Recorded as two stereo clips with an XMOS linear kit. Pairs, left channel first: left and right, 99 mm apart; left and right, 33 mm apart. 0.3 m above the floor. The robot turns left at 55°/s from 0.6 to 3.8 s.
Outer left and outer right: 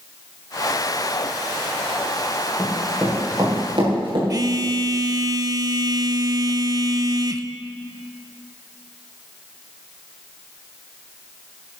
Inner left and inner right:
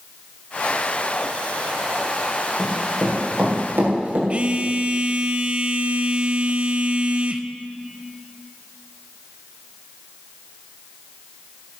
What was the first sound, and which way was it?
Running footsteps, 5° left (ahead or behind).